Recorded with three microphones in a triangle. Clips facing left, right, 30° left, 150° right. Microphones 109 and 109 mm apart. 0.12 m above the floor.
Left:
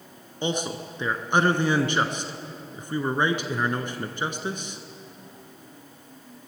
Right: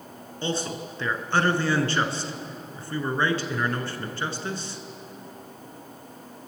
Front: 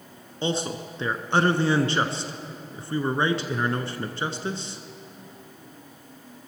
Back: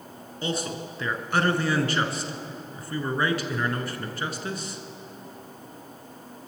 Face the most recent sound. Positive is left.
turn(degrees=40)